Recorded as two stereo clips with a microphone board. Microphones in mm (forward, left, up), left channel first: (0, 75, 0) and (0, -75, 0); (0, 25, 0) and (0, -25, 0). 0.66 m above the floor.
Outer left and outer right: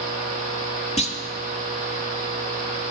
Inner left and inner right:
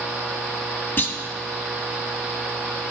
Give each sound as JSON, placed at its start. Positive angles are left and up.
{"t": 1.0, "sound": "a clunk", "side_deg": 45, "distance_m": 0.7}